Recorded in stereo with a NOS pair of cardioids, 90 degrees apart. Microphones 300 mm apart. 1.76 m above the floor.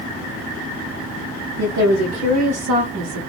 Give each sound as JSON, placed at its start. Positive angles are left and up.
{"t": 1.6, "sound": "a woman speaking", "azimuth_deg": -65, "distance_m": 1.0}